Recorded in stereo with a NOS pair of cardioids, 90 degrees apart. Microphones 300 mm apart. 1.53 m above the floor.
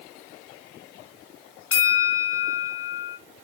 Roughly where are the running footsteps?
No running footsteps in this recording.